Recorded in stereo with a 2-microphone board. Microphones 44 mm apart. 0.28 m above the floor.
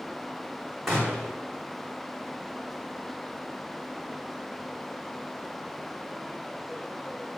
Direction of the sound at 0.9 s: Centre (ahead or behind).